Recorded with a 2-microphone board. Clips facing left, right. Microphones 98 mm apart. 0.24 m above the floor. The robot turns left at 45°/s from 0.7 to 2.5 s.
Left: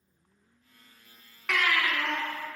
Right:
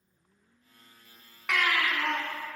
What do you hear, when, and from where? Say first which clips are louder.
1.5 s a baby crying: even; 5° right, 1.3 m; by 2.2 s 40° right, 1.3 m